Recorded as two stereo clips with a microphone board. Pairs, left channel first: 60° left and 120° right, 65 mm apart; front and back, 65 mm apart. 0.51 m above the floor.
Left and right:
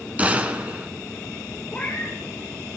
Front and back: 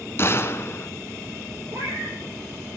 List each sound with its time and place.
0.2 s a gunshot: 55° right, 1.5 m
1.7 s a cat meowing: 140° left, 4.5 m